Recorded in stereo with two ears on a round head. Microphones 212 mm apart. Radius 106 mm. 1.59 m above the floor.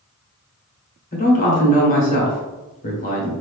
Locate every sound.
1.1 s a man speaking: 35° left (ahead or behind), 1.1 m